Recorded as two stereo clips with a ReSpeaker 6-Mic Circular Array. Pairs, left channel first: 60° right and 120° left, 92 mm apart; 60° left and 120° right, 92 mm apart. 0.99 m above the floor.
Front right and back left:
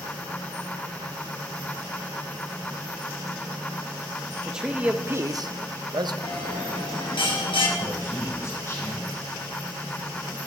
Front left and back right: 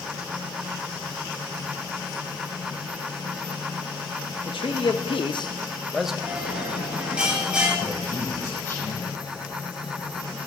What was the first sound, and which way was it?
A man speaking, 35° left.